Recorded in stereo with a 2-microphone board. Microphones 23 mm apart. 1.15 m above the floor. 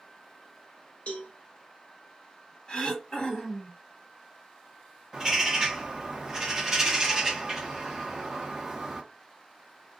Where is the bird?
15° right (ahead or behind), 1.0 m.